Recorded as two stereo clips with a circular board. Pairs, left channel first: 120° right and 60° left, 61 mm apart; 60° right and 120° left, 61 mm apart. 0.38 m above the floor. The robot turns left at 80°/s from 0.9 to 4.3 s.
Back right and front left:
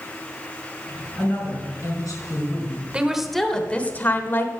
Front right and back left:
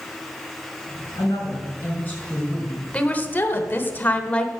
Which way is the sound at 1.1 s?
45° right.